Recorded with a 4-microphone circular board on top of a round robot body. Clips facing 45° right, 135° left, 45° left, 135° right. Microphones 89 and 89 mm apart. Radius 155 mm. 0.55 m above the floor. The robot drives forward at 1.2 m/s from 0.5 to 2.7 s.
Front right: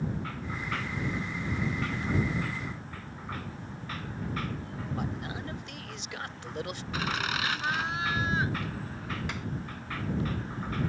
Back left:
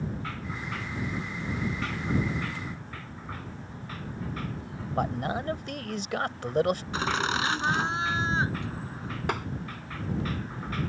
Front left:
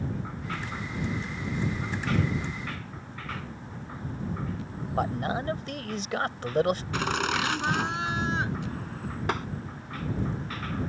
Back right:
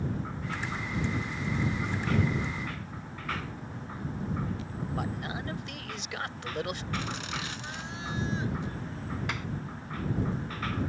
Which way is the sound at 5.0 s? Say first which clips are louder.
Back left 10 dB, front left 9 dB; 95° left.